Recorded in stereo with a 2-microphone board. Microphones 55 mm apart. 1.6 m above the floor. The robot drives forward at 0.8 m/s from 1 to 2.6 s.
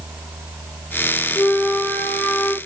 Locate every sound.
1.4 s a flute: 50° left (ahead or behind), 2 m; by 2.6 s 40° left (ahead or behind), 2.5 m